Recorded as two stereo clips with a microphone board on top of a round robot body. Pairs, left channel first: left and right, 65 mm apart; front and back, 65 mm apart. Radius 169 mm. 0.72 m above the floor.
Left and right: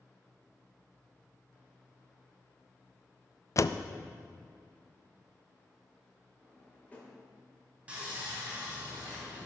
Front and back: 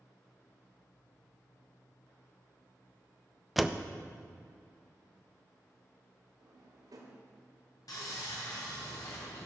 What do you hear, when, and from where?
3.6 s a door slam: 90° left, 0.6 m
6.4 s a drawer: 160° left, 1.7 m
7.9 s sawing: 20° right, 3.5 m